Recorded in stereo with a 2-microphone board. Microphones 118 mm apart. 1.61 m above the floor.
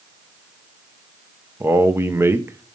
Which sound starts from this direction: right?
A man speaking, at 1.6 s.